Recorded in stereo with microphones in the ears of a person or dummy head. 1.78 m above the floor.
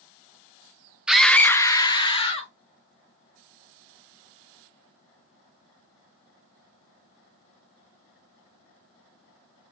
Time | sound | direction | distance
1.1 | a scream | 10° right (ahead or behind) | 0.5 m